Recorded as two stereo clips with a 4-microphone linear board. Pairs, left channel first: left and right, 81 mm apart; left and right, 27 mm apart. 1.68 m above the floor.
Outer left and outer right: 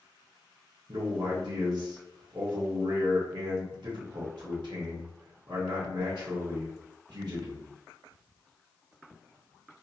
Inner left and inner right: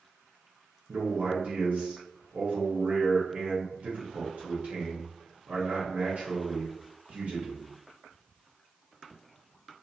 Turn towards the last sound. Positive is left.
turn(degrees=-70)  # may be behind; listen again after turning